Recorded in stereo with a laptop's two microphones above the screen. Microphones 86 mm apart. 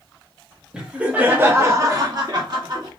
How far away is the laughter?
About 1.1 m.